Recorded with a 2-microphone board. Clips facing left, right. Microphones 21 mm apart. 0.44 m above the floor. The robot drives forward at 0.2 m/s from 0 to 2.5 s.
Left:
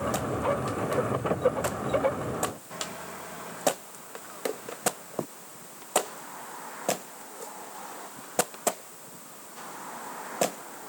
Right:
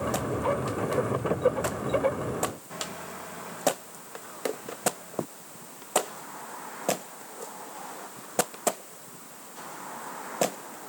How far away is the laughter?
I don't hear laughter.